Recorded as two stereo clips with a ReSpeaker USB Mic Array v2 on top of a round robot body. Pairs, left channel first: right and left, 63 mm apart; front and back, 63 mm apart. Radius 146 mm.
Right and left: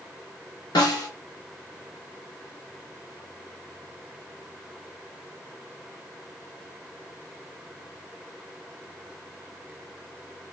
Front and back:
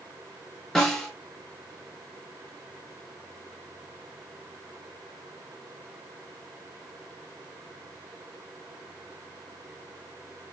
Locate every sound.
0.8 s a snare drum: 85° right, 0.6 m